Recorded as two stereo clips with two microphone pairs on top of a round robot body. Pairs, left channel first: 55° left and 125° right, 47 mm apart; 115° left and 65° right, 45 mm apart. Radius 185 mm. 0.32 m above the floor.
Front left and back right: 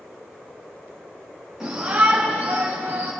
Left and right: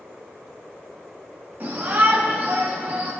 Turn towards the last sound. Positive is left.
turn(degrees=-110)